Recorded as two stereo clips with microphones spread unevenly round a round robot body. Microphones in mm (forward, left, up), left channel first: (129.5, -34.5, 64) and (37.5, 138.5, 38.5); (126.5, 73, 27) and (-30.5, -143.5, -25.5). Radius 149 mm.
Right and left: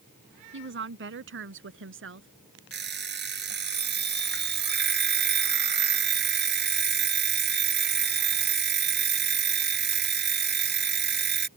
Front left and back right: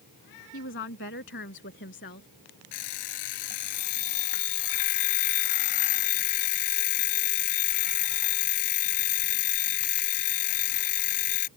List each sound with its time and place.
0.5 s a woman speaking: 110° left; by 2.3 s 115° left
2.7 s an alarm clock: 90° left